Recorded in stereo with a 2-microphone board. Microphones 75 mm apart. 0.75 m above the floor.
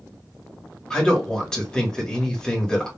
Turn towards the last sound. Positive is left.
turn(degrees=10)  # may be behind; listen again after turning